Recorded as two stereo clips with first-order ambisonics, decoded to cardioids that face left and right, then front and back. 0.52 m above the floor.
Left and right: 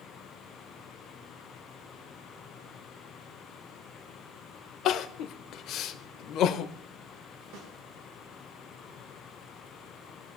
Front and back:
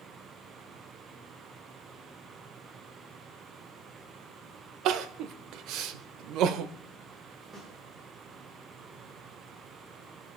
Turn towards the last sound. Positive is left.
turn(degrees=-115)